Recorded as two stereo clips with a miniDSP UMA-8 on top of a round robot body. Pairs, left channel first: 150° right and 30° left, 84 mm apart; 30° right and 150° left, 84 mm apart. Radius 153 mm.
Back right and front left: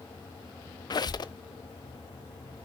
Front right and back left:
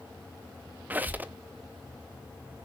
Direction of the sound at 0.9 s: 145° right.